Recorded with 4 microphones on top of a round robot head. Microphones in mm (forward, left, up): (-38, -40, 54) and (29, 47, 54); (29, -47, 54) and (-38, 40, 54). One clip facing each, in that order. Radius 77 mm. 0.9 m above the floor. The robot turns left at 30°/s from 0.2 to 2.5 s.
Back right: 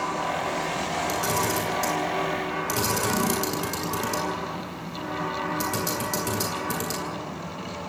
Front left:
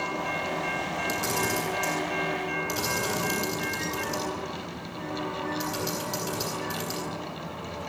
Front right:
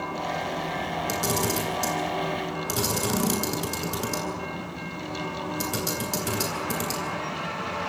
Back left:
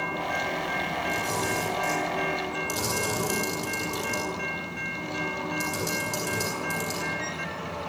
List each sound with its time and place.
1.1 s a camera shutter: 40° right, 10 m; by 7.0 s 85° right, 10 m